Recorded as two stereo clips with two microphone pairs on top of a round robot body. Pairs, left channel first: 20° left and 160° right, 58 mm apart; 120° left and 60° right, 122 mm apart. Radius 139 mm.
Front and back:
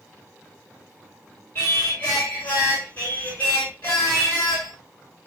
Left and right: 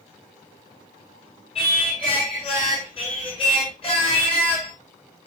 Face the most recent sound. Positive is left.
turn(degrees=75)